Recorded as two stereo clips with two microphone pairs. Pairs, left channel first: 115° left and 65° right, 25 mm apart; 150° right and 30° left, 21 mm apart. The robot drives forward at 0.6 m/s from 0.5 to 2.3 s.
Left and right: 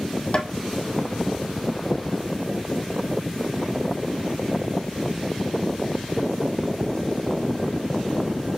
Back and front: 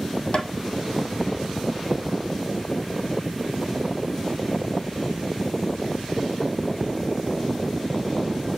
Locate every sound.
0.3 s tapping: 170° left, 1.1 m